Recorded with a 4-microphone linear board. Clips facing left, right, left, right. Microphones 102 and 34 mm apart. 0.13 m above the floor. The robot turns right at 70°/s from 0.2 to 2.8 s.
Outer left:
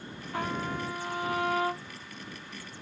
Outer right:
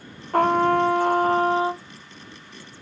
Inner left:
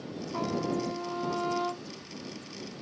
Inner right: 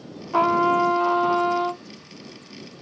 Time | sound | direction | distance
0.3 | a trumpet | 120° right | ?